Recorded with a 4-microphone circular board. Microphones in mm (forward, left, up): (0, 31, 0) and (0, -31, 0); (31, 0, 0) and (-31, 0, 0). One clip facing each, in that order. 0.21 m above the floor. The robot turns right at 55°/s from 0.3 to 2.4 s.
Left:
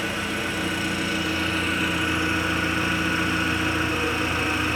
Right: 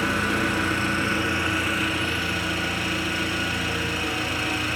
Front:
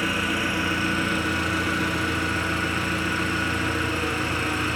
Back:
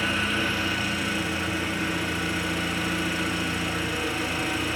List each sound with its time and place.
0.0 s an engine running: 80° right, 0.8 m; by 4.8 s 35° left, 0.8 m